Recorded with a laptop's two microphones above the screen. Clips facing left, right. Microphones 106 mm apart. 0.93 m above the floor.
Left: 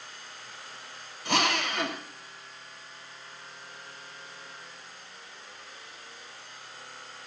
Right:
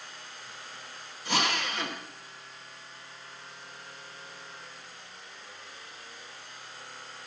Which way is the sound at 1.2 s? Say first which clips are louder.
Left 3 dB; 60° left (ahead or behind).